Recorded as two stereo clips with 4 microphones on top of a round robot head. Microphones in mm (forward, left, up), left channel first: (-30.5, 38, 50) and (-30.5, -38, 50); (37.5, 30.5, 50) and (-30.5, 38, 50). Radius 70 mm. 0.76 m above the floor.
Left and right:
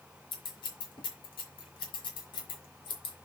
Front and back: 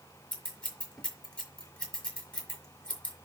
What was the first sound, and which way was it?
Scissors, 65° left.